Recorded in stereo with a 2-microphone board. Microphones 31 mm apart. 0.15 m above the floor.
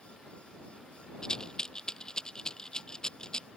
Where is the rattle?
25° left (ahead or behind).